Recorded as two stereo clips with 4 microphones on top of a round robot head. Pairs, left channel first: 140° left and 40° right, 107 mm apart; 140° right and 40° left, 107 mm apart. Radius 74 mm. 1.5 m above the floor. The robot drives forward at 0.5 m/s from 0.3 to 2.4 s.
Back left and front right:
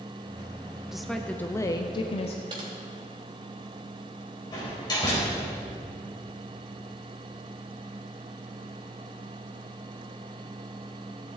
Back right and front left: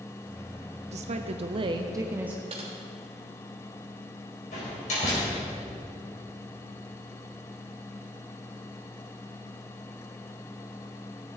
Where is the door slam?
165° right, 4.5 m.